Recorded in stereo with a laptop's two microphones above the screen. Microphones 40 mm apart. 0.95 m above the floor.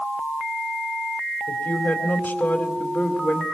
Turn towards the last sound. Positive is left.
turn(degrees=40)  # may be behind; listen again after turning